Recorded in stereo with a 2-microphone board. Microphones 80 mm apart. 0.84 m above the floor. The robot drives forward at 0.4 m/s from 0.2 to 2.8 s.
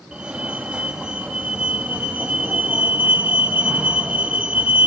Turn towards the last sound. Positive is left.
turn(degrees=-15)  # may be behind; listen again after turning